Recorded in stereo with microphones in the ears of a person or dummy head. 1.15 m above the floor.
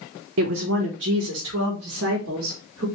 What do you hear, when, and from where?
0.4 s a woman speaking: 70° right (ahead or behind), 0.8 m; by 2.9 s 75° right (ahead or behind), 2.5 m